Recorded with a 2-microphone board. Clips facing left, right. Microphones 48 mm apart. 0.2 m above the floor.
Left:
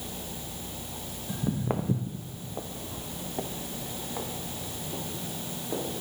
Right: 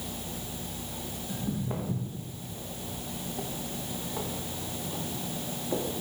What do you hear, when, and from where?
1.3 s footsteps: 45° left (ahead or behind), 0.9 m; by 5.8 s centre (ahead or behind), 1.9 m